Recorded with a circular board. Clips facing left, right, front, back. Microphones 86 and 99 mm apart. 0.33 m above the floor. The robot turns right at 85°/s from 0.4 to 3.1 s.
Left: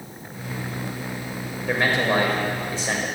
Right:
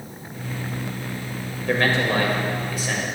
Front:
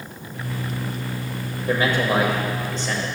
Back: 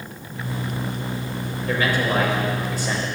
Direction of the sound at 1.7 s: 15° left.